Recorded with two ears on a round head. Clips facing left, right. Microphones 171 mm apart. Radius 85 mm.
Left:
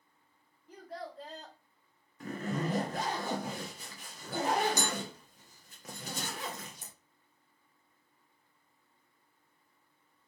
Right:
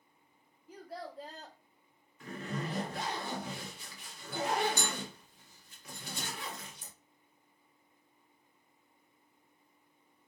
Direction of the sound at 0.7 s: 5° right (ahead or behind).